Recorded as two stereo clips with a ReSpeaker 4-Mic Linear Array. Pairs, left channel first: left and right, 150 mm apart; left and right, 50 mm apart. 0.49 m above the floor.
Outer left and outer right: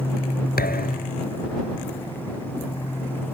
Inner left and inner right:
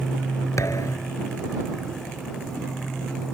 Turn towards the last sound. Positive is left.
turn(degrees=85)